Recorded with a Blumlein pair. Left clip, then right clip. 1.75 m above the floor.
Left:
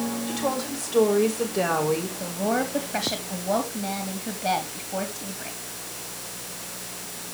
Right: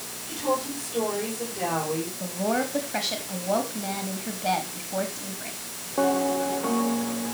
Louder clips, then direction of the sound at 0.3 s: Right 3 dB; 65° left.